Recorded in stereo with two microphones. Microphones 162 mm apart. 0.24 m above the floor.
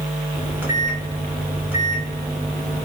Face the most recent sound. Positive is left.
turn(degrees=-10)  # may be behind; listen again after turning